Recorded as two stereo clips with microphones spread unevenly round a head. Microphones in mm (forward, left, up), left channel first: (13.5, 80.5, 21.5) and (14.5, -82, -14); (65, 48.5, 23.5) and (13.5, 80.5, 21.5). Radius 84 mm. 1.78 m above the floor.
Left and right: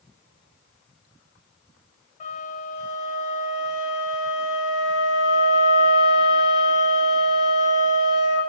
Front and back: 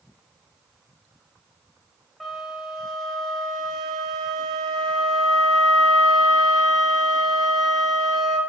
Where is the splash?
I don't hear a splash.